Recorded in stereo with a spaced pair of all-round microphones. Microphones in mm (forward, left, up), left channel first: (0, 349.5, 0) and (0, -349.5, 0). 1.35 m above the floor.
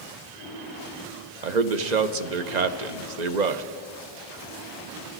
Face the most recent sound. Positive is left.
turn(degrees=-75)  # may be behind; listen again after turning